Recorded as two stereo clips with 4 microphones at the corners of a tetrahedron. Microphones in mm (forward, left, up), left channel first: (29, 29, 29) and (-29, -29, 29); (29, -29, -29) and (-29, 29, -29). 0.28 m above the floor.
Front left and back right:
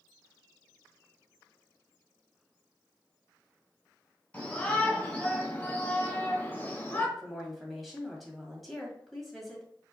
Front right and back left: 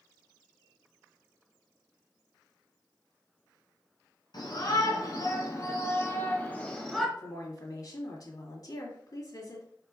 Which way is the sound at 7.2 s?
45° right.